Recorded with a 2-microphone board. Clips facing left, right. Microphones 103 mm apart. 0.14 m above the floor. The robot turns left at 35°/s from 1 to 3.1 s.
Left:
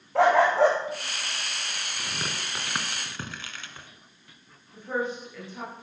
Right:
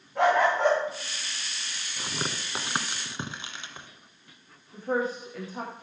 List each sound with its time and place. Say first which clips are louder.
0.1 s a dog barking: left 3 dB; 80° left, 4.5 m
2.0 s tearing paper: right 3 dB; 25° right (ahead or behind), 1.4 m; by 3.9 s 20° right (ahead or behind), 1.4 m
4.7 s a woman speaking: right 2 dB; 35° right (ahead or behind), 8 m